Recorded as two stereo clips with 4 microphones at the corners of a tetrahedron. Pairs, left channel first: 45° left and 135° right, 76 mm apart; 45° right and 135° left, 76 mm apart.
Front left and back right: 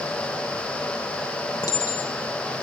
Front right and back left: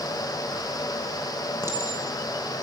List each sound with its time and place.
1.6 s a clink: 80° left, 3.5 m